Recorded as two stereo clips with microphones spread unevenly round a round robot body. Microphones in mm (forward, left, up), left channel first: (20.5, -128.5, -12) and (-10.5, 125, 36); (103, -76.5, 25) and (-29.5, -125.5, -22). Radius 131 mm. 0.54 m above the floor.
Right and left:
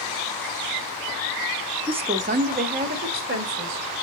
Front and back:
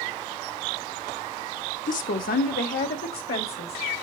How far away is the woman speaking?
About 0.8 m.